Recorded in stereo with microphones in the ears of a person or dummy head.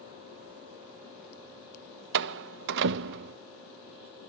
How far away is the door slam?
About 0.5 m.